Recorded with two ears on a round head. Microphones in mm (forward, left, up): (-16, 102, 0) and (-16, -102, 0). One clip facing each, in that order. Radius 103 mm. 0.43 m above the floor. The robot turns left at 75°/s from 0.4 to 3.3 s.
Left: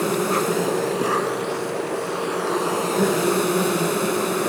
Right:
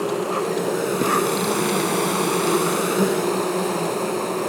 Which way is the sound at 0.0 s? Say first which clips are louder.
Left 1 dB; 25° left.